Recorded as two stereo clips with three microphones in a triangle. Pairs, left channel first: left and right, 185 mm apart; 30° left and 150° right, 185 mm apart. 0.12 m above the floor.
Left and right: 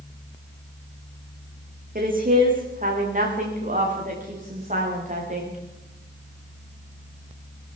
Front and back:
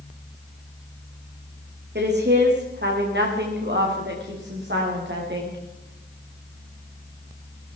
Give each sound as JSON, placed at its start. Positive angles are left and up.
{"t": 1.9, "sound": "a woman speaking", "azimuth_deg": -130, "distance_m": 7.0}